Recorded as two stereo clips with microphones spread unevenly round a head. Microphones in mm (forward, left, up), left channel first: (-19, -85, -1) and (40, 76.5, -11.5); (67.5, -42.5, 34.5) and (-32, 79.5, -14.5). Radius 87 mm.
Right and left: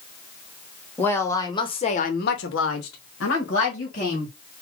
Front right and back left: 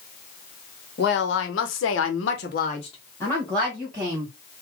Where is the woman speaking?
30° right, 1.4 m; by 4.3 s 150° right, 1.7 m.